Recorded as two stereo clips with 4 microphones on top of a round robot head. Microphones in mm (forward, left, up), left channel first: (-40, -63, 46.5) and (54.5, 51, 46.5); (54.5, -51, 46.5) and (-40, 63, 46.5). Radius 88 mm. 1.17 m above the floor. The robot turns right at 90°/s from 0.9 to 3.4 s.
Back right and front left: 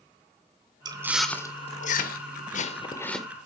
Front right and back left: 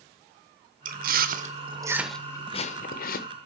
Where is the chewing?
110° left, 0.7 m; by 3.3 s 35° right, 0.7 m.